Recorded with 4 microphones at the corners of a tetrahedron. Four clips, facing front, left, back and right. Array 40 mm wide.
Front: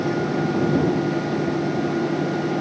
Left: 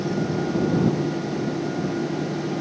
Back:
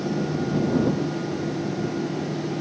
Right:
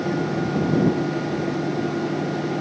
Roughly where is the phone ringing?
I don't hear a phone ringing.